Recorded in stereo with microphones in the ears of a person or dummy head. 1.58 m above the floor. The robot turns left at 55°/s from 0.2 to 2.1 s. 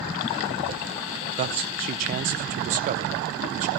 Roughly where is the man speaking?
Right.